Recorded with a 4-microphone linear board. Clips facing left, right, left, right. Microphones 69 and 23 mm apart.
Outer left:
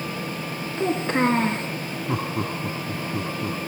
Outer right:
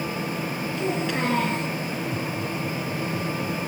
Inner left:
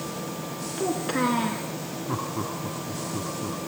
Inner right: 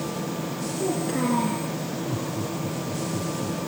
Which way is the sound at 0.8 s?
35° left (ahead or behind).